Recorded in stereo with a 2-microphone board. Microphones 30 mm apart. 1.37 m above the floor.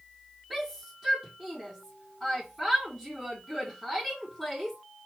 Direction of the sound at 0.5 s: 10° right (ahead or behind).